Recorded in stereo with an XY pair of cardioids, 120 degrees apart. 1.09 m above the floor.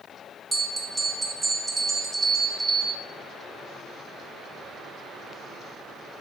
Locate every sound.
0.5 s a bell: 15° right, 0.5 m